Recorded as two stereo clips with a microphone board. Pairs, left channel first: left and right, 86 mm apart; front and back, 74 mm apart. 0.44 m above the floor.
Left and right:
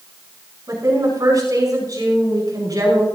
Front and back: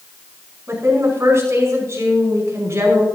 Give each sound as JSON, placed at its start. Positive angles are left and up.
{"t": 0.7, "sound": "a woman speaking", "azimuth_deg": -130, "distance_m": 5.0}